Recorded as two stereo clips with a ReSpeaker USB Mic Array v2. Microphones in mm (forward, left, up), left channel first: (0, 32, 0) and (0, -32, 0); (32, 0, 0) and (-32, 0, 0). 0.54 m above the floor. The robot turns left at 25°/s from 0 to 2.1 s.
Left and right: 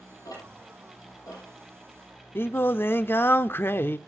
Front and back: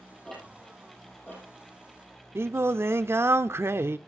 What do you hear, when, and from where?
0.2 s ticking: 85° left, 6.5 m; by 2.2 s 40° left, 6.5 m
2.4 s singing: 140° left, 0.6 m